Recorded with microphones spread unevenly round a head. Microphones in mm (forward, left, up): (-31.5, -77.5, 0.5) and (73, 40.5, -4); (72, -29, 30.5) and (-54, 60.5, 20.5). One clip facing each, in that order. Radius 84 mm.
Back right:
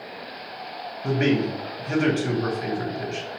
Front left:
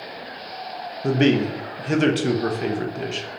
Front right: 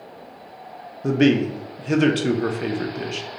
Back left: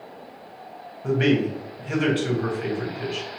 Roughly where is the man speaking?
Ahead.